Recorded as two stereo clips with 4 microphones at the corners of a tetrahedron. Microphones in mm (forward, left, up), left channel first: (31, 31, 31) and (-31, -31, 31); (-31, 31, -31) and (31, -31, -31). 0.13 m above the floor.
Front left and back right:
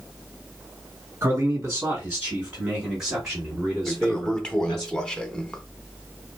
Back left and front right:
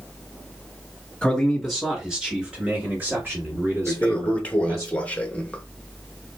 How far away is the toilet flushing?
About 0.6 m.